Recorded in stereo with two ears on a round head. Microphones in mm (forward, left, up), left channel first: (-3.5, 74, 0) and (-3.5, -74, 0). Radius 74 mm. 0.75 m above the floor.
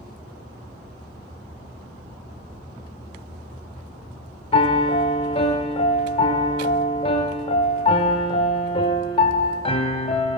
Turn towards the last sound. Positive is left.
turn(degrees=35)  # may be behind; listen again after turning